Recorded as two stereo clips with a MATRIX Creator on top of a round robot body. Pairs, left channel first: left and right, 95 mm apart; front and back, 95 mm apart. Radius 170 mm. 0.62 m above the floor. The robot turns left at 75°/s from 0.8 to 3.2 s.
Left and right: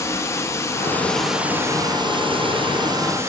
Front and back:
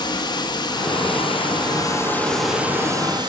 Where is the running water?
35° left, 1.2 m; by 3.3 s 145° right, 1.2 m.